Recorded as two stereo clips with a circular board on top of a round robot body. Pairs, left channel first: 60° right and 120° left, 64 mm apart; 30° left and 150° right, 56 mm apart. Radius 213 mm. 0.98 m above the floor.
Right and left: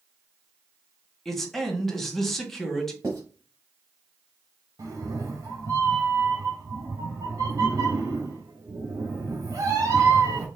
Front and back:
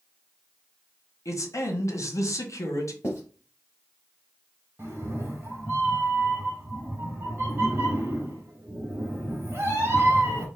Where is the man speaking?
25° left, 1.5 m.